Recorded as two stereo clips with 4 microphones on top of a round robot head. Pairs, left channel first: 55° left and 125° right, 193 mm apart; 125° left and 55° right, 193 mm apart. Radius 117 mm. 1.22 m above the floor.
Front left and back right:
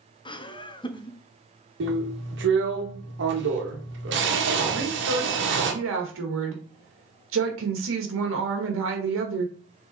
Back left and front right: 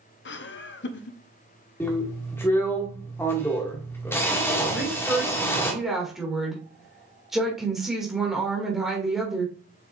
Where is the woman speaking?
140° right, 1.5 m.